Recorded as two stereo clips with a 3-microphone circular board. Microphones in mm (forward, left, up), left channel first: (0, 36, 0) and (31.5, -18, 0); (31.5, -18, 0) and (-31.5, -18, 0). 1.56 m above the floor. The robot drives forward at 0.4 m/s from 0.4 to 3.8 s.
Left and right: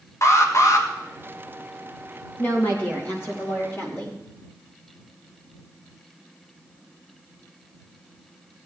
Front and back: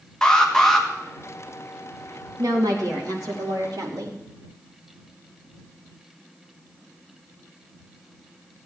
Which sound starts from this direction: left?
An alarm, at 0.2 s.